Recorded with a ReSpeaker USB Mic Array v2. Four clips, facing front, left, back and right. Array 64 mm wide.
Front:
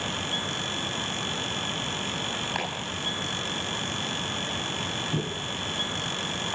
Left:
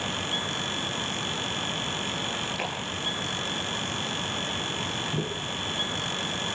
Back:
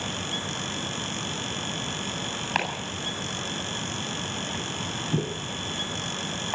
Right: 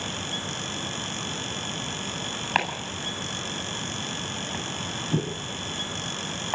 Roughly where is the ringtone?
I don't hear a ringtone.